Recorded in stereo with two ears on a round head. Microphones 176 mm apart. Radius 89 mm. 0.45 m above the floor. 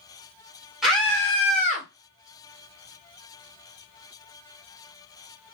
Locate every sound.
0.8 s a scream: centre (ahead or behind), 1.8 m; by 1.9 s 45° left (ahead or behind), 2.0 m